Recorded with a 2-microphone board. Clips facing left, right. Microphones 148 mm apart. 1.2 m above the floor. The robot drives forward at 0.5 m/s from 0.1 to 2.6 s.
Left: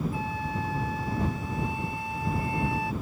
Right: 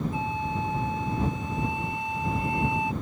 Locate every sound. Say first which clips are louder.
0.1 s a flute: right 2 dB; 20° right (ahead or behind)